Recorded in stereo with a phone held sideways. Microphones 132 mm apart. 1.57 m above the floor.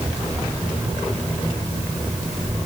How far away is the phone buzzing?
No phone buzzing in this recording.